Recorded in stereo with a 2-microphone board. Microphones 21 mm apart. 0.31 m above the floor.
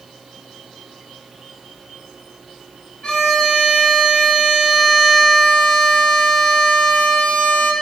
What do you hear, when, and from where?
3.0 s a violin: 55° left (ahead or behind), 1.0 m